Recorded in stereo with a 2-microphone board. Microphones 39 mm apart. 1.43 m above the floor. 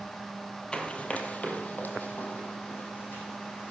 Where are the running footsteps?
25° left (ahead or behind), 2.0 m; by 3.7 s 60° left (ahead or behind), 4.5 m.